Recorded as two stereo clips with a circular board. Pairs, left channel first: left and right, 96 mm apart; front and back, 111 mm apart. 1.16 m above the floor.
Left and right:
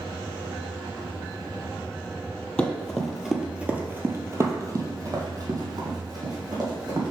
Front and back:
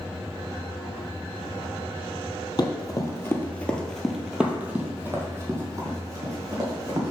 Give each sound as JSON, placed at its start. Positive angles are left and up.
{"t": 2.6, "sound": "running footsteps", "azimuth_deg": 20, "distance_m": 1.4}